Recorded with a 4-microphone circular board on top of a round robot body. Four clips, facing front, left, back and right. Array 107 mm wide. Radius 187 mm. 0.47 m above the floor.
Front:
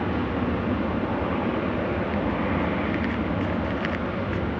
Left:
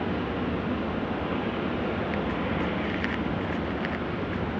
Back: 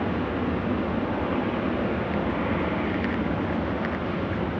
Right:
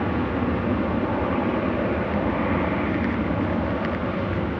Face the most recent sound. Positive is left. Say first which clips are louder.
# right 5 dB, front 1 dB
turn(degrees=-80)